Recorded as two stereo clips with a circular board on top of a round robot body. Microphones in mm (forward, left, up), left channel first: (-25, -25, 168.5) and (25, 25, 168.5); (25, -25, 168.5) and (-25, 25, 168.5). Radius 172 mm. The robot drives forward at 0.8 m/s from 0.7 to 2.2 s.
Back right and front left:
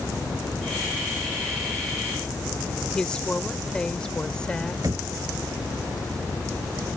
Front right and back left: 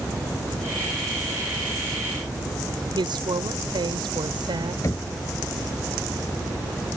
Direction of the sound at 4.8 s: 5° left.